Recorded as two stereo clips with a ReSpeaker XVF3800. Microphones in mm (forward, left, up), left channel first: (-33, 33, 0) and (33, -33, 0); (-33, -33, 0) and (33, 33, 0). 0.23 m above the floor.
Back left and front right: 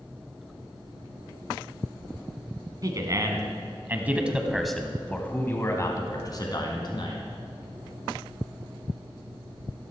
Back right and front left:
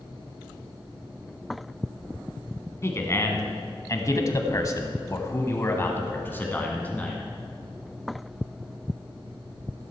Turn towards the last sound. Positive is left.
turn(degrees=150)